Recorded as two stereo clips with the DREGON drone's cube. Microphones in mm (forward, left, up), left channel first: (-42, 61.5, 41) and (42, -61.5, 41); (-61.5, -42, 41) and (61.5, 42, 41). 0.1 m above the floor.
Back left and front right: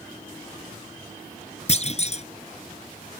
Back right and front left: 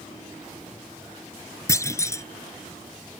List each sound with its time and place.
1.7 s a clunk: 150° left